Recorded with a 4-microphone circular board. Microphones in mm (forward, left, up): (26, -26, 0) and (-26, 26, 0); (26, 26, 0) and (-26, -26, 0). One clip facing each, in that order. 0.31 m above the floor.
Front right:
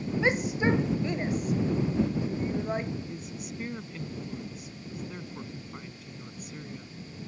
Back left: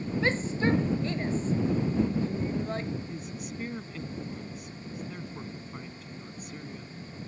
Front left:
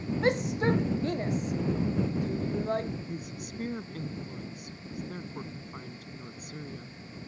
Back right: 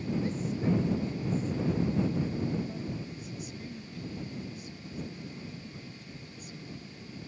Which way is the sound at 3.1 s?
45° left.